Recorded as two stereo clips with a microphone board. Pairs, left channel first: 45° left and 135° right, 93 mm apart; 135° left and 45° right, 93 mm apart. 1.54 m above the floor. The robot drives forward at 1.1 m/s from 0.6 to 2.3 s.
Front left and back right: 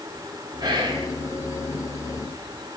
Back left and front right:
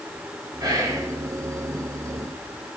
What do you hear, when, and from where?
0.6 s whispering: 90° right, 1.8 m; by 1.1 s 110° right, 1.9 m